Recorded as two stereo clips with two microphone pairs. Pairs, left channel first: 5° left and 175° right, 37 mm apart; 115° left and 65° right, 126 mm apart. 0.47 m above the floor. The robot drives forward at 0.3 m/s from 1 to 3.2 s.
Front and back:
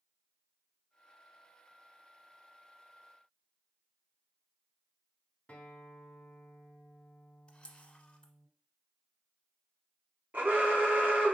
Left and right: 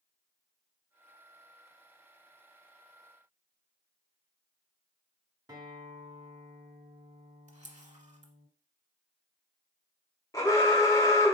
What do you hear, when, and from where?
5.5 s a guitar: 25° right, 0.9 m
7.5 s a camera shutter: 55° right, 0.8 m
10.3 s an alarm: 165° left, 0.9 m